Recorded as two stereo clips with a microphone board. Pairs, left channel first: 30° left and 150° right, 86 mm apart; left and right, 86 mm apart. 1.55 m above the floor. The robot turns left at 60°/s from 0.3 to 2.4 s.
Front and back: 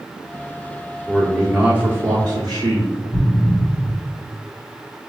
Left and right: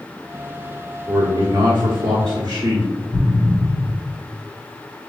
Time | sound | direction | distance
1.1 | a man speaking | 55° right | 0.9 m
3.1 | an explosion | 15° left | 1.8 m